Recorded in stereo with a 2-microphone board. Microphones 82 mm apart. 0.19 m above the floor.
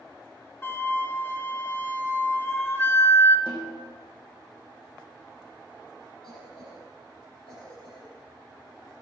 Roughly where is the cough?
Left.